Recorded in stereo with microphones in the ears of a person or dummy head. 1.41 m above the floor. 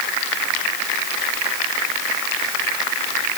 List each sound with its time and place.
Only background noise.